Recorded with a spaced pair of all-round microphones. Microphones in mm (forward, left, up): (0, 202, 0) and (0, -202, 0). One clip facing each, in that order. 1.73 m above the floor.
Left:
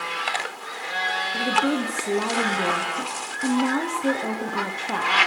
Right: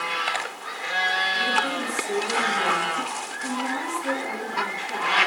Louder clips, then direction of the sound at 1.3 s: Left 8 dB; 75° left (ahead or behind).